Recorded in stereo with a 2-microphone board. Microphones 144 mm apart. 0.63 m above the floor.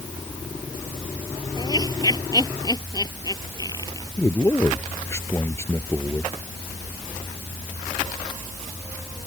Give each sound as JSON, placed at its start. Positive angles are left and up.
{"t": 1.6, "sound": "laughter", "side_deg": 30}
{"t": 4.2, "sound": "a man speaking", "side_deg": 20}